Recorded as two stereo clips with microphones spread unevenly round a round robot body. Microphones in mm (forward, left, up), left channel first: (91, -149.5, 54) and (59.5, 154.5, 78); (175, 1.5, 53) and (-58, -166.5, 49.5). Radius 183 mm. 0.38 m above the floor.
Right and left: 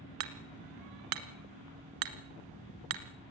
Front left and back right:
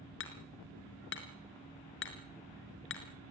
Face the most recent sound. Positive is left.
turn(degrees=95)